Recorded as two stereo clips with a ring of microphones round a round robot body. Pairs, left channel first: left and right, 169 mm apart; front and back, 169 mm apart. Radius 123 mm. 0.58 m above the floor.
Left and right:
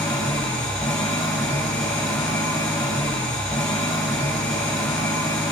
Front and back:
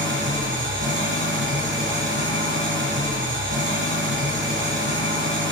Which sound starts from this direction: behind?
An engine running, at 0.0 s.